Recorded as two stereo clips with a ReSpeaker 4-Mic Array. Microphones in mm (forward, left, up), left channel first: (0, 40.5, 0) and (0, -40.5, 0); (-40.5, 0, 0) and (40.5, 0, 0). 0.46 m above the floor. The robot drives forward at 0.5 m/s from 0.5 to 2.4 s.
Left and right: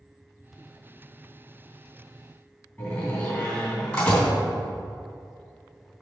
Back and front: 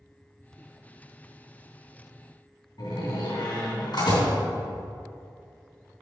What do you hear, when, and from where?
2.8 s a door slam: 165° left, 3 m